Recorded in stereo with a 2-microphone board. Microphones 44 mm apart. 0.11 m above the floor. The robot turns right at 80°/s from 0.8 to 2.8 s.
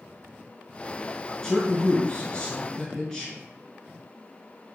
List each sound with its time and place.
1.4 s a man speaking: 15° left (ahead or behind), 1.3 m